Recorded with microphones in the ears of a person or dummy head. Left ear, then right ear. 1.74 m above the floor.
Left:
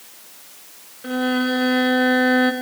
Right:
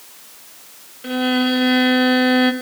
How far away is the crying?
I don't hear crying.